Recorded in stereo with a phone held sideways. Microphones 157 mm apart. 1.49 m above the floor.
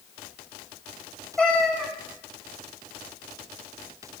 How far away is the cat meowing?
About 2.5 m.